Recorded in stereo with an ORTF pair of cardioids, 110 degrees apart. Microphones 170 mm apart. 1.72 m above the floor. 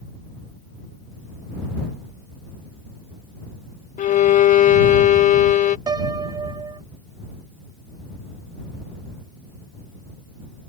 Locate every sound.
4.0 s a violin: 45° left
5.9 s a piano: 25° right